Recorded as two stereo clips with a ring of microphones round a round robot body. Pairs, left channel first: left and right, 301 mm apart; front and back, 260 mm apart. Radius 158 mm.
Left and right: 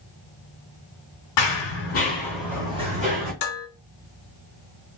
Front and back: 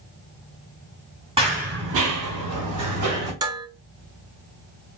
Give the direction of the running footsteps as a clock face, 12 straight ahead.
8 o'clock.